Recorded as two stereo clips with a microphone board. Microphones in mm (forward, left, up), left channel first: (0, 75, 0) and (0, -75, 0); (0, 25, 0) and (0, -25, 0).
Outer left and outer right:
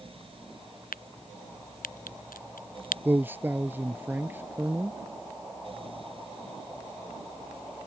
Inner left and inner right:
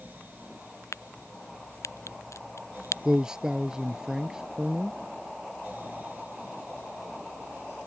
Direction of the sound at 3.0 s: 15° right (ahead or behind).